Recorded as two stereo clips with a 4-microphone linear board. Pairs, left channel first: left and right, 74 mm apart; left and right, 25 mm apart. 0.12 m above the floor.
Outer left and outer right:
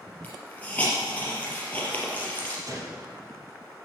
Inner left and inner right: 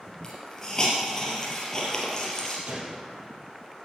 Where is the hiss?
20° left (ahead or behind), 3.5 m.